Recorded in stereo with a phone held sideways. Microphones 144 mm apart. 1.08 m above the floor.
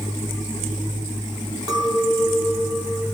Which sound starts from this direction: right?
A clink, at 1.7 s.